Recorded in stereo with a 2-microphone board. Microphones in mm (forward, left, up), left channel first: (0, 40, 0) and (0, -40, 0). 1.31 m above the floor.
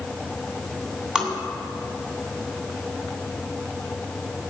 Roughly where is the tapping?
Centre.